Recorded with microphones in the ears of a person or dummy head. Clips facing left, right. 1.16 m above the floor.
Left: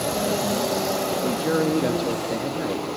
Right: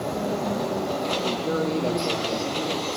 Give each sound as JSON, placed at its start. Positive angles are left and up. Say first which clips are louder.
{"t": 1.2, "sound": "a man speaking", "louder": "left 5 dB", "side_deg": 20, "distance_m": 1.9}